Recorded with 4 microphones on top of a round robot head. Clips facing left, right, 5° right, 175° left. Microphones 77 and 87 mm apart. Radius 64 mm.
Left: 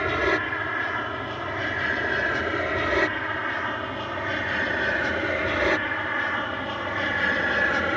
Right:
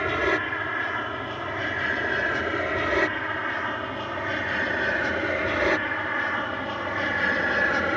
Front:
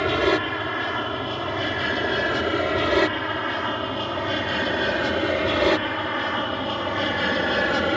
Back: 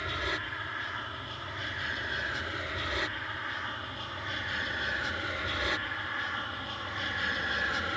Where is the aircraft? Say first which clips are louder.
Left 1 dB, front 14 dB; straight ahead; by 8.0 s 5° right.